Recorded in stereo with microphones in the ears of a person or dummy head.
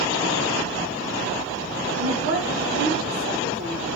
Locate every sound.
2.0 s a woman speaking: 75° right (ahead or behind), 1.6 m